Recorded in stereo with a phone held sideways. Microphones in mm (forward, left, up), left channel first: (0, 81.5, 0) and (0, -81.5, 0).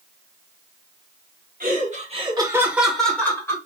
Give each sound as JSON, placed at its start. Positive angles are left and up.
{"t": 1.6, "sound": "laughter", "side_deg": -60, "distance_m": 1.3}